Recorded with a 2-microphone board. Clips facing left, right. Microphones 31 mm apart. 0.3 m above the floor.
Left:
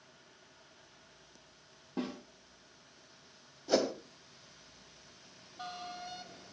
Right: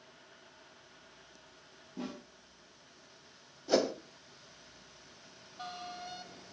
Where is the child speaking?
No child speaking in this recording.